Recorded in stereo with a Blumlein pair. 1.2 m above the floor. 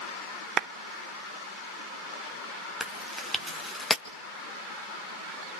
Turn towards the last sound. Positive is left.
turn(degrees=0)